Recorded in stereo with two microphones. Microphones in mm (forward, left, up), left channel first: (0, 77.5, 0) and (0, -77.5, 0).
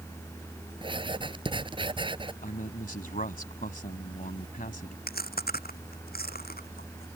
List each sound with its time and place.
0.8 s writing: 35° right (ahead or behind)
2.4 s a man speaking: 65° left (ahead or behind)
5.1 s chewing: 80° left